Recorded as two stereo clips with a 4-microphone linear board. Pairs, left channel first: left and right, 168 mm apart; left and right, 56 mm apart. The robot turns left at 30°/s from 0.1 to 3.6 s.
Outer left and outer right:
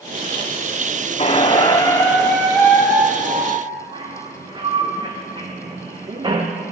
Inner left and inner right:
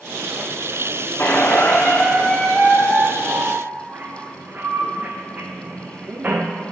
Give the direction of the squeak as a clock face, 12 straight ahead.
11 o'clock.